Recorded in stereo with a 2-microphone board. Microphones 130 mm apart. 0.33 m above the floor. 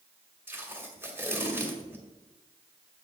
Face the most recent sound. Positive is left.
turn(degrees=-15)  # may be behind; listen again after turning